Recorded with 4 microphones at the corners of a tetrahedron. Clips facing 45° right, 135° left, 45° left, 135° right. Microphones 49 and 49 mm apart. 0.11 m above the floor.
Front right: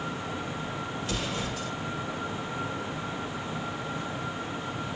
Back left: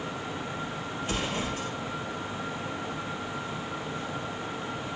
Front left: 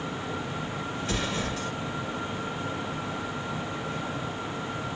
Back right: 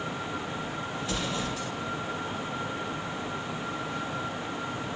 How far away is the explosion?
About 1.5 m.